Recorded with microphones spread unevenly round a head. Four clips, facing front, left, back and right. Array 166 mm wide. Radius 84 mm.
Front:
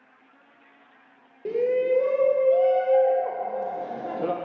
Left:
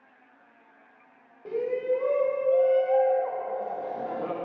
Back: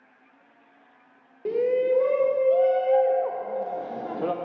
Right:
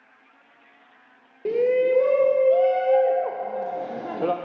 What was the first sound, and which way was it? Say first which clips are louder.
A shout: right 7 dB, even; 110° right.